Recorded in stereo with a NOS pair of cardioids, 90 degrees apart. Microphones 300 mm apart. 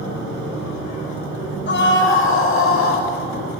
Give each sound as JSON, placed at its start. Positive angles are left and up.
{"t": 1.7, "sound": "a scream", "azimuth_deg": 40, "distance_m": 6.5}